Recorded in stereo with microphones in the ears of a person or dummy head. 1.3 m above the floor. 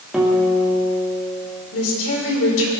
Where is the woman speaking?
80° left, 4.5 m.